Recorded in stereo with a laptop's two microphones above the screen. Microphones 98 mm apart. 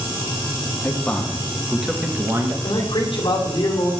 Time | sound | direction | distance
0.8 | a man speaking | 20° left (ahead or behind) | 1.1 m
2.6 | a man speaking | 60° left (ahead or behind) | 2.5 m